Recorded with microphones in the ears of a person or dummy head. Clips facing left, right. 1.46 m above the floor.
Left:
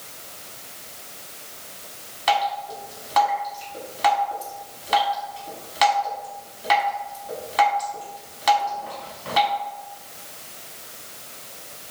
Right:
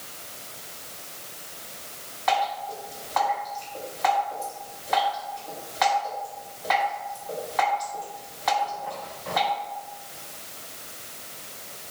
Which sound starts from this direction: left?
Dripping, at 2.3 s.